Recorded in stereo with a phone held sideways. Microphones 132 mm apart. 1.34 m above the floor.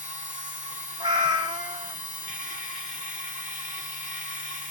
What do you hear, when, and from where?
0.0 s a machine running: 75° left (ahead or behind), 1.9 m
1.0 s a cat meowing: 35° right (ahead or behind), 0.8 m